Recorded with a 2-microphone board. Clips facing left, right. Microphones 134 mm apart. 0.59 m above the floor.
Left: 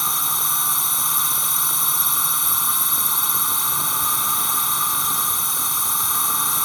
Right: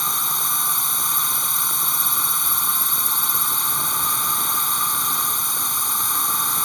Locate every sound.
0.0 s a drone: centre (ahead or behind)